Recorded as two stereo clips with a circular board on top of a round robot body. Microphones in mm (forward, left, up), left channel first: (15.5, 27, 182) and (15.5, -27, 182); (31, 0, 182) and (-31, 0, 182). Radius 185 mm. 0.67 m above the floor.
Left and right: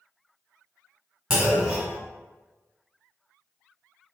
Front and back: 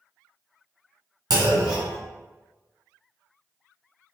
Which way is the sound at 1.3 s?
170° right.